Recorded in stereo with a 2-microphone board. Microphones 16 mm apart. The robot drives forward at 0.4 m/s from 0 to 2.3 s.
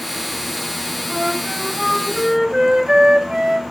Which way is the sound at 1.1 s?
30° right (ahead or behind).